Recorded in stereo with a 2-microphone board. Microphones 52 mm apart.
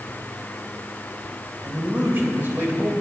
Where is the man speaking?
40° right (ahead or behind), 2.5 m.